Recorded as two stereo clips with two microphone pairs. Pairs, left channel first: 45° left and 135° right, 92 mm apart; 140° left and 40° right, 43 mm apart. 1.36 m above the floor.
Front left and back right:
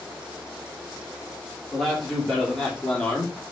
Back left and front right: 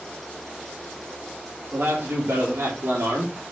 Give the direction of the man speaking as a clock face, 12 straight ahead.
2 o'clock.